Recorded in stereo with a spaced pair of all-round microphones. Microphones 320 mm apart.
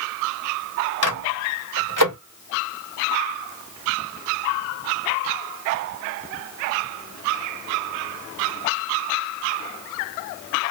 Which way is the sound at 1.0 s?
75° right (ahead or behind).